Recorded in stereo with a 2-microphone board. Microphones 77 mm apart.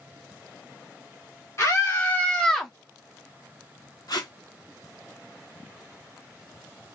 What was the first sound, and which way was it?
A scream, 35° left (ahead or behind).